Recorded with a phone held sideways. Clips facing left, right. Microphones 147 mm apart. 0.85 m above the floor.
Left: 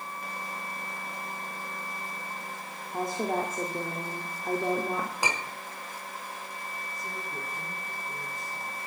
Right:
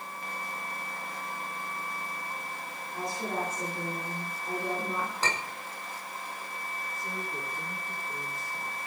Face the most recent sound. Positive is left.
turn(degrees=20)  # may be behind; listen again after turning